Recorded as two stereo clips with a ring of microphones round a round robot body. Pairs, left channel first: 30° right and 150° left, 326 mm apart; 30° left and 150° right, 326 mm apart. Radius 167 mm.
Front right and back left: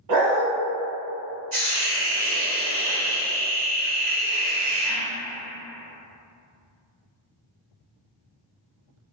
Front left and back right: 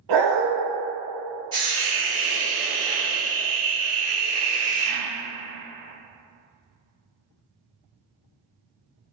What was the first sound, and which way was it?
A dog barking, 175° right.